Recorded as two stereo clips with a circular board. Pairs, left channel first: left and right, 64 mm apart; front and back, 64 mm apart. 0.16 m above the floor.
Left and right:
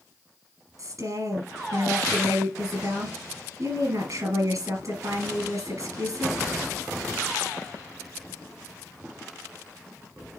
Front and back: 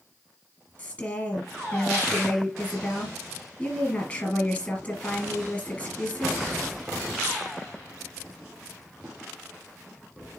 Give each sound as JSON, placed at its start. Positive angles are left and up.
{"t": 0.8, "sound": "a woman speaking", "azimuth_deg": -60, "distance_m": 3.0}